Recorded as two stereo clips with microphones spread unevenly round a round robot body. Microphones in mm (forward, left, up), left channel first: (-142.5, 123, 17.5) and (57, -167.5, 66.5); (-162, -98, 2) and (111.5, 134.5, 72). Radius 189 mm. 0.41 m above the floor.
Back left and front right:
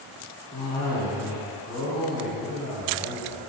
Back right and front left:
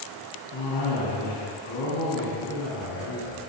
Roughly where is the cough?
Behind right.